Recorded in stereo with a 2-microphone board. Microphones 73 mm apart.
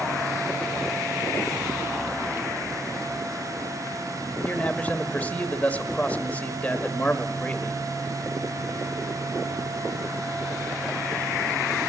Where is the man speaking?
20° left (ahead or behind), 0.9 m.